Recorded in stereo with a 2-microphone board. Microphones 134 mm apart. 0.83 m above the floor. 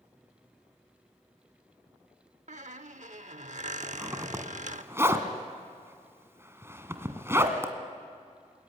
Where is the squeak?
65° right (ahead or behind), 0.8 m.